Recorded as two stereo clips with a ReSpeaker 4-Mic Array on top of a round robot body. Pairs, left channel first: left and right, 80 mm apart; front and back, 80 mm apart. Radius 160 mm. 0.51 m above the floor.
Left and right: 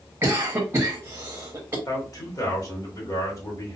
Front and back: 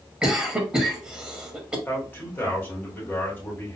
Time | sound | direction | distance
0.2 | a cough | 115° right | 1.2 m
1.9 | a man speaking | 60° left | 1.7 m